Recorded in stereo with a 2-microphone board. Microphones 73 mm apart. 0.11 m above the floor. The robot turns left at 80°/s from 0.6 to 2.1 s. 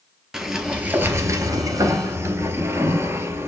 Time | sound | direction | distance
0.3 | a sliding door | 10° right | 0.6 m